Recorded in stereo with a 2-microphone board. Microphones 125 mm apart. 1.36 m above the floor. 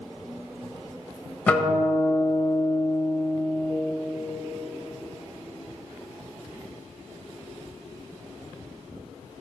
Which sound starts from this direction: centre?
A guitar, at 1.5 s.